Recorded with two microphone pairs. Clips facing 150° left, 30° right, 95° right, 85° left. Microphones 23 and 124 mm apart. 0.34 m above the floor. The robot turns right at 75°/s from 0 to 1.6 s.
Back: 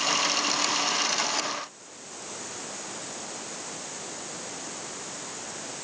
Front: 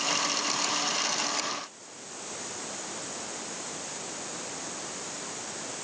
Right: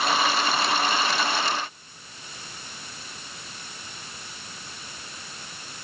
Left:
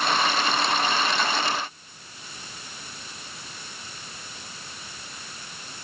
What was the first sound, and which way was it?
Only background noise.